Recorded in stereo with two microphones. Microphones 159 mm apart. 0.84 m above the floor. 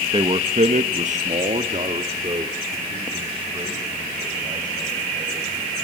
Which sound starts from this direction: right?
A man speaking, at 0.1 s.